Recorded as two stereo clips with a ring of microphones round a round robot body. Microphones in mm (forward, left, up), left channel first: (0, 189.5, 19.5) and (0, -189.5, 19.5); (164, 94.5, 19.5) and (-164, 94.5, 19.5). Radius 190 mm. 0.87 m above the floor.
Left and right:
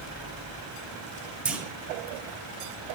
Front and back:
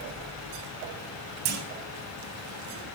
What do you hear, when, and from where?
1.4 s a clunk: 175° right, 1.9 m